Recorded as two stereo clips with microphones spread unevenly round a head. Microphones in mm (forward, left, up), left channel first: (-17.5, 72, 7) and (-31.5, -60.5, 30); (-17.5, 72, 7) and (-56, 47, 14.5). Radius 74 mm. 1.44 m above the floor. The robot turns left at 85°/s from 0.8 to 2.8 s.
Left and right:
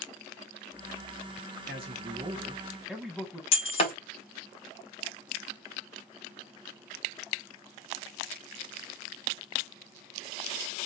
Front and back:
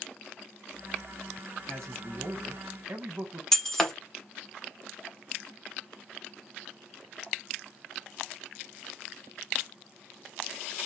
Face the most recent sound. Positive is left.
turn(degrees=120)